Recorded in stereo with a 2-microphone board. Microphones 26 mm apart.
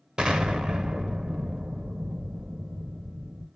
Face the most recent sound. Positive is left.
turn(degrees=-30)  # may be behind; listen again after turning